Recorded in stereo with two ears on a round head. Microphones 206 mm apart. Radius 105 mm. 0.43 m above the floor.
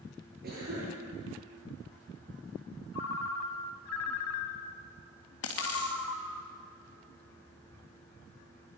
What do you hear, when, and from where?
0.4 s a cough: 45° right (ahead or behind), 9.5 m
2.9 s a ringtone: 75° left (ahead or behind), 1.3 m
5.4 s a dropped coin: 65° left (ahead or behind), 3 m